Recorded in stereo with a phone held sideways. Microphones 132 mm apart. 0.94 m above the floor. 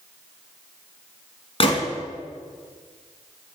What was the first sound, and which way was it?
A gunshot, 45° left (ahead or behind).